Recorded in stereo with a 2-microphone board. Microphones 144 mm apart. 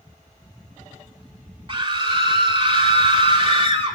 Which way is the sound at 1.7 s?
35° right (ahead or behind).